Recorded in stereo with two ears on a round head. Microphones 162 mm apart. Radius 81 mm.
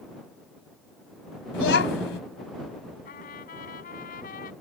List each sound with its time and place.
1.5 s a child speaking: 65° left (ahead or behind)
3.0 s a trumpet: 50° left (ahead or behind)